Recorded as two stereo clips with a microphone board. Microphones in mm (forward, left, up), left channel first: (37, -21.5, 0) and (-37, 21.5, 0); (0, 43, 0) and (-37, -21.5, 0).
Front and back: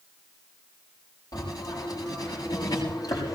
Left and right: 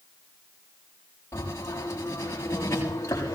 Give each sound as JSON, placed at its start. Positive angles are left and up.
{"t": 1.3, "sound": "writing", "azimuth_deg": 10, "distance_m": 7.5}